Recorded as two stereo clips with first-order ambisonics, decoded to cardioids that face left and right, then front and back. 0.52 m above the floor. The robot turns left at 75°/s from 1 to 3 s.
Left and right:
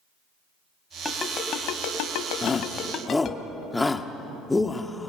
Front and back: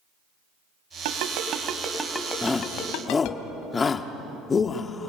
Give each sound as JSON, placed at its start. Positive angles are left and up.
{"t": 1.1, "sound": "a ringtone", "azimuth_deg": 170, "distance_m": 1.9}
{"t": 2.4, "sound": "a shout", "azimuth_deg": 70, "distance_m": 0.9}